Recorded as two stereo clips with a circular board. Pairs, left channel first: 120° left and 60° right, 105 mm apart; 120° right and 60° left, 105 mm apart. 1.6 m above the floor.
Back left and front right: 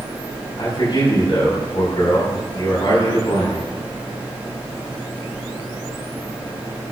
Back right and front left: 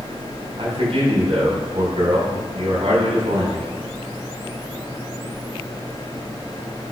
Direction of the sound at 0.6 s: 80° left.